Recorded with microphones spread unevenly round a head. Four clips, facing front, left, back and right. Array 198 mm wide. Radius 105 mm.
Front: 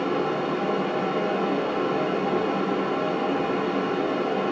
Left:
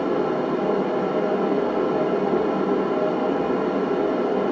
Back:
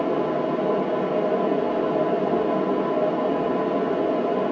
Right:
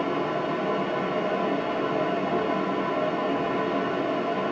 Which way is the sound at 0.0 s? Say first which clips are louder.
Left 4 dB, back 2 dB; 120° left.